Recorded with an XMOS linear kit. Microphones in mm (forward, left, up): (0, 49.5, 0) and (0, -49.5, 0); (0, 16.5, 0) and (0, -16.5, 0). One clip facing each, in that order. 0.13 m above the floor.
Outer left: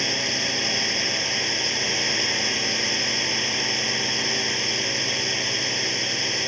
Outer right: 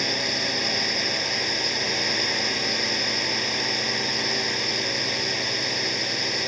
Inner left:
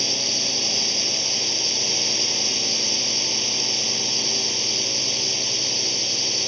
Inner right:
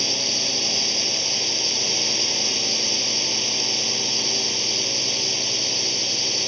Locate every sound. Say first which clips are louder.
0.0 s a drone: even, inner right 1 dB; 5° right (ahead or behind)